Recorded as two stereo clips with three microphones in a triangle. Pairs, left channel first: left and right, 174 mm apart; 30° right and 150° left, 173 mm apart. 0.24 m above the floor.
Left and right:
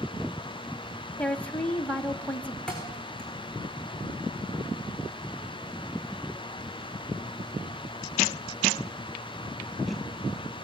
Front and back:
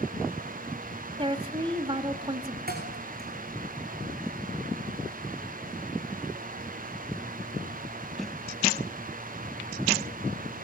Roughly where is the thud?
Behind.